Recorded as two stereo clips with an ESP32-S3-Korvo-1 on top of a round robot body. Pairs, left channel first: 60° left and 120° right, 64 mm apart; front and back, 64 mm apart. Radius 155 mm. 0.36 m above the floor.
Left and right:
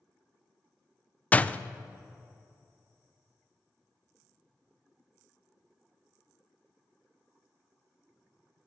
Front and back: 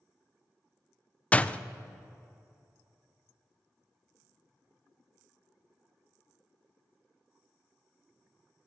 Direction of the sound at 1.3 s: 35° left.